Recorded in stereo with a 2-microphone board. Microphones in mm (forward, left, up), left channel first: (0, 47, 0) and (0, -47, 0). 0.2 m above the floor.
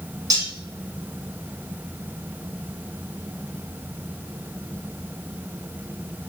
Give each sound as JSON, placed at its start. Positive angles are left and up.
{"t": 0.3, "sound": "cutlery clinking", "side_deg": -40, "distance_m": 0.8}